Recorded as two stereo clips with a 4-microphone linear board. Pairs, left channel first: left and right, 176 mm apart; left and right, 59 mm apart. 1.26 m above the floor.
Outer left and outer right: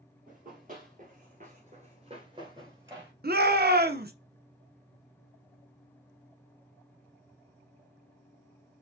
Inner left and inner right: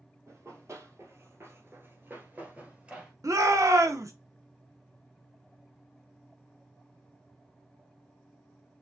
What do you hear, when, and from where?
0.3 s running footsteps: 50° right (ahead or behind), 2 m; by 3.1 s 15° right (ahead or behind), 1.8 m
3.2 s a shout: 60° right (ahead or behind), 0.7 m